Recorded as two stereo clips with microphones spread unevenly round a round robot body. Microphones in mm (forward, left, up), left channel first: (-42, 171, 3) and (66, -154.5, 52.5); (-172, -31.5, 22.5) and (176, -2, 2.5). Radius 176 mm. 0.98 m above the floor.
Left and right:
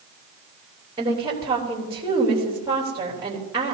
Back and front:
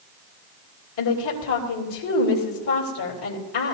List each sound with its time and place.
1.0 s a woman speaking: 155° right, 3 m